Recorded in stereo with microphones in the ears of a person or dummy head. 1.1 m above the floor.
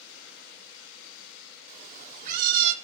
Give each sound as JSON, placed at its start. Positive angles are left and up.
{"t": 1.7, "sound": "a cat meowing", "side_deg": -40, "distance_m": 1.7}